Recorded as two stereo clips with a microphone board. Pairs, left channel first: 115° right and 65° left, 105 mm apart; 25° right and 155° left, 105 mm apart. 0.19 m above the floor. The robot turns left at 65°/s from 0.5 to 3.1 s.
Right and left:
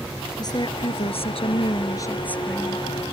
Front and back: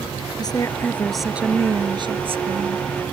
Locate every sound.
0.4 s a woman speaking: 70° right; by 2.9 s 135° left